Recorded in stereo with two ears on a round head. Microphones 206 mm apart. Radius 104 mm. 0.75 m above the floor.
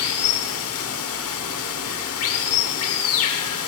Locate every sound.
0.0 s running water: 75° left (ahead or behind), 1.2 m